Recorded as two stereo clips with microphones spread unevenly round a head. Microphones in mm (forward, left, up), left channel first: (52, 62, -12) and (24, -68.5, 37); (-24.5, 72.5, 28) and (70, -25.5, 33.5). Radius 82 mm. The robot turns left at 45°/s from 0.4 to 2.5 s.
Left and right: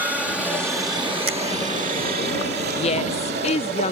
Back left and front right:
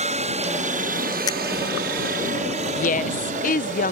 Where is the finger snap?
160° right; by 1.4 s 165° right.